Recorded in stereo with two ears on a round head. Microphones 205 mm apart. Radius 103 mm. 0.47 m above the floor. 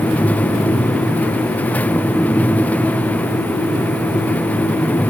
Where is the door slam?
No door slam in this recording.